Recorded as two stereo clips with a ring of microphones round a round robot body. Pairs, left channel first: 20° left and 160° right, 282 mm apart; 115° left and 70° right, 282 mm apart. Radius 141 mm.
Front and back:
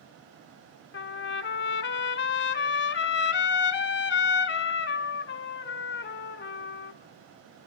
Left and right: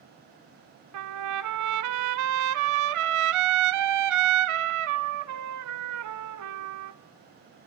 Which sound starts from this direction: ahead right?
A trumpet, at 0.9 s.